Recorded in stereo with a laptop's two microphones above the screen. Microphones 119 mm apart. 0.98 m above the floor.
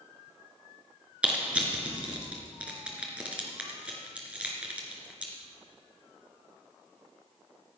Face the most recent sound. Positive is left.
turn(degrees=-10)  # may be behind; listen again after turning